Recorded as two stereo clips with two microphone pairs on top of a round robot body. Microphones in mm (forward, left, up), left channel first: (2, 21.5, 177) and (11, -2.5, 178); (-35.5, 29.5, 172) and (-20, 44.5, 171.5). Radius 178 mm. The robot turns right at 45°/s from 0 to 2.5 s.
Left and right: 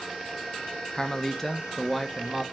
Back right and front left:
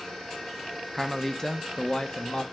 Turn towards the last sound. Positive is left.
turn(degrees=-140)